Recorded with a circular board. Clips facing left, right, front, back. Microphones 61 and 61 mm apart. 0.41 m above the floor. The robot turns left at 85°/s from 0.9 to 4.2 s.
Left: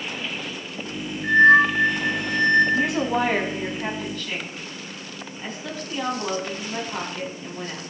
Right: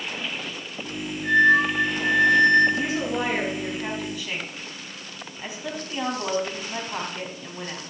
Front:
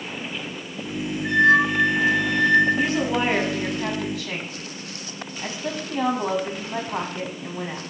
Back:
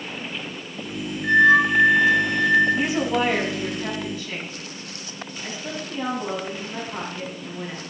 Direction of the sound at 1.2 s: 140° left.